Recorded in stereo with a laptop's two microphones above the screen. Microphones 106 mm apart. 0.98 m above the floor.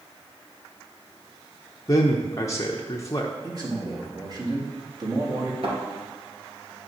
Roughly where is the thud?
Right.